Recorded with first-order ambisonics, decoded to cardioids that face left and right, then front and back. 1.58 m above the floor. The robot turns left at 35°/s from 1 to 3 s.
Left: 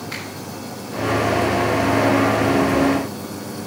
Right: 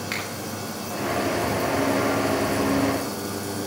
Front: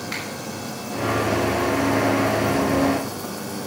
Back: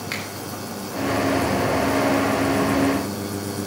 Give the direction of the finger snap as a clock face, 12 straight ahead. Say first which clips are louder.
Right 2 dB, back 1 dB; 5 o'clock.